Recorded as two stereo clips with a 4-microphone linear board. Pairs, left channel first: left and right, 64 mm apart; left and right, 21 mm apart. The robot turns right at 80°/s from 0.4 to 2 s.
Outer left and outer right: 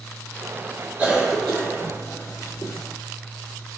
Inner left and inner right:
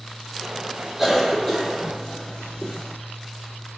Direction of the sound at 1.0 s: 25° right (ahead or behind).